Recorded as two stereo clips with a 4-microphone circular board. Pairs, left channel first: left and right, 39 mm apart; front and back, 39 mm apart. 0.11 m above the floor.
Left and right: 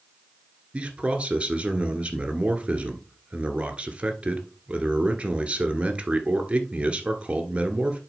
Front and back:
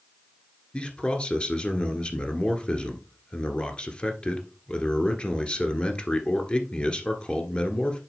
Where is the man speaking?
45° right, 1.5 m.